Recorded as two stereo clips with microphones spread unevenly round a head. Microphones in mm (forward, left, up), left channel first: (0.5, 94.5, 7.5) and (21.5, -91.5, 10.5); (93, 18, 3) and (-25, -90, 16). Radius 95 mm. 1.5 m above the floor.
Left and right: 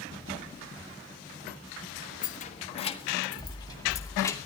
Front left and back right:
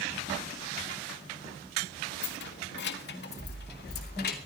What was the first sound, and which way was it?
Keys jangling, 50° left.